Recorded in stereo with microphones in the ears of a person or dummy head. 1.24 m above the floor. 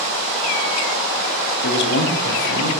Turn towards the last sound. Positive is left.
turn(degrees=75)  # may be behind; listen again after turning